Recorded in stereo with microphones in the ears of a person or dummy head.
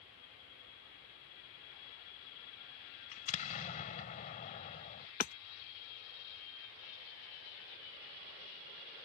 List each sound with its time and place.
3.1 s an explosion: 40° left (ahead or behind)
5.2 s hammering: 45° left (ahead or behind)